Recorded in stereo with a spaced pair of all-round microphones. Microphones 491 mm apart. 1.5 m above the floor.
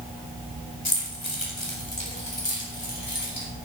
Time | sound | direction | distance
0.8 | keys jangling | 70° left (ahead or behind) | 2.5 m